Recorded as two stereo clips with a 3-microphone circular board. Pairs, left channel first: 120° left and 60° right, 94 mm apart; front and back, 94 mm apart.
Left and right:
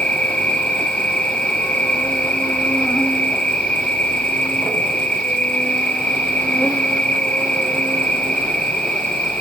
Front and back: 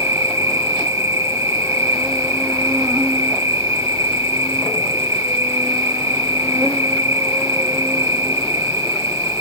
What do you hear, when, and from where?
0.0 s an insect: 170° right, 1.3 m